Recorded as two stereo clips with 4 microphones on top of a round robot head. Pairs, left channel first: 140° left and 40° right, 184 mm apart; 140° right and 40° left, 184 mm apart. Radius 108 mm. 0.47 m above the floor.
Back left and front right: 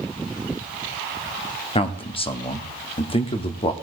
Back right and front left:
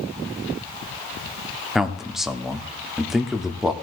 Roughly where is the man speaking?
Behind left.